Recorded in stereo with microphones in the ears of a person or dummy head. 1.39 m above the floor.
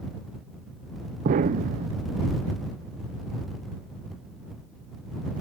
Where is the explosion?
45° right (ahead or behind).